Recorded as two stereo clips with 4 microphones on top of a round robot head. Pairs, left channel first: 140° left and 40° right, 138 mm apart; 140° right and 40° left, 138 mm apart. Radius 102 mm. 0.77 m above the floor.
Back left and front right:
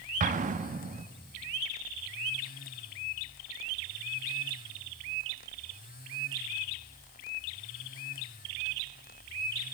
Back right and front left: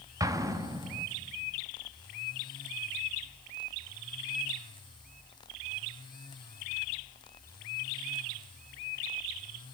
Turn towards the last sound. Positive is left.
turn(degrees=-25)